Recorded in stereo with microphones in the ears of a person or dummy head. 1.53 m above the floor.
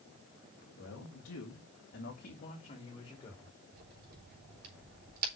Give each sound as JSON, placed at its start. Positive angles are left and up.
{"t": 0.8, "sound": "a man speaking", "side_deg": 75, "distance_m": 2.0}
{"t": 3.7, "sound": "a crack", "side_deg": -55, "distance_m": 3.5}